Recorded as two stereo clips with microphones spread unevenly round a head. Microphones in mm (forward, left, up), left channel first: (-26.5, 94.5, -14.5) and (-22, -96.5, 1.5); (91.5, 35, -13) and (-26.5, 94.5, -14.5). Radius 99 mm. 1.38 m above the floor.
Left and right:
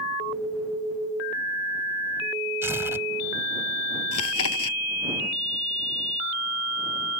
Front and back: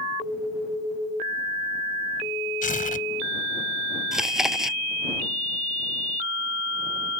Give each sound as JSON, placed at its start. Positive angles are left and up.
{"t": 2.6, "sound": "tearing paper", "azimuth_deg": -10}
{"t": 4.1, "sound": "chewing", "azimuth_deg": 65}